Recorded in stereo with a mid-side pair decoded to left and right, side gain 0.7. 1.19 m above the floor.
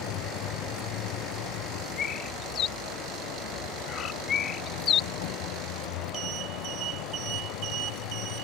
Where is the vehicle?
60° left; by 8.4 s 75° left.